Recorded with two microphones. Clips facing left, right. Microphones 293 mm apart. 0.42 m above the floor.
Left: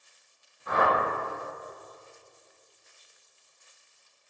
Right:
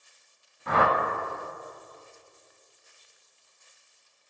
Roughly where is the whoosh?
Right.